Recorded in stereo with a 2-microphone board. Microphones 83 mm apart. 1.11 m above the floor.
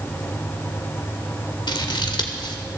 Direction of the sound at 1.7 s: 70° left (ahead or behind).